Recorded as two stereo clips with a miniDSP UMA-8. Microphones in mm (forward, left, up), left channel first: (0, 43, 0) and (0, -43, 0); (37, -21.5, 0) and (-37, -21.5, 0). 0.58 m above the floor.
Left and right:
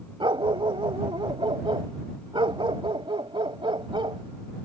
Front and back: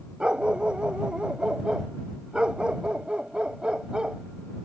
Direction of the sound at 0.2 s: 100° right.